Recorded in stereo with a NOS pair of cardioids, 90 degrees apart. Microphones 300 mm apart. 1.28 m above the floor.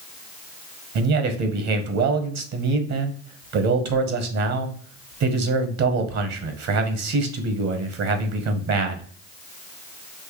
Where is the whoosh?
No whoosh in this recording.